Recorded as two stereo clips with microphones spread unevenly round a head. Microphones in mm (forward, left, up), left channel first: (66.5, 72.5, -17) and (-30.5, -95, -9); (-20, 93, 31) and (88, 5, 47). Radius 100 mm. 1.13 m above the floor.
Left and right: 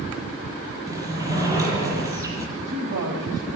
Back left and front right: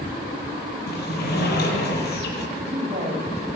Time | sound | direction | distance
0.9 | a sliding door | 165° left | 7.5 m
2.6 | a woman speaking | 95° right | 5.5 m